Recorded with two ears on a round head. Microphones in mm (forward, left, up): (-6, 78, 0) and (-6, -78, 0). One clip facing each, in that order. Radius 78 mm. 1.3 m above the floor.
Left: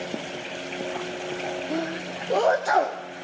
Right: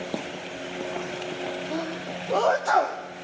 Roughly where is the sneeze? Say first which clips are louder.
Left 2 dB; centre.